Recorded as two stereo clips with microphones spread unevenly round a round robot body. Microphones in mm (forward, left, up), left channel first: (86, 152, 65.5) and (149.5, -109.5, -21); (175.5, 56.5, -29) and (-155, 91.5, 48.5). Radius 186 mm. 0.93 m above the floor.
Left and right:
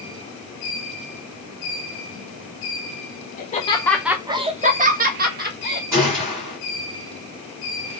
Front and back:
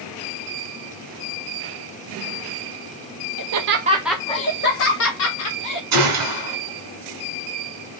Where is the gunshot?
165° right, 1.7 m.